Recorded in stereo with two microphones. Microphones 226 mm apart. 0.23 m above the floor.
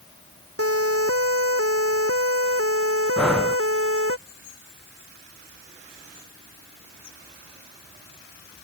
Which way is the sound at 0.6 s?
80° right.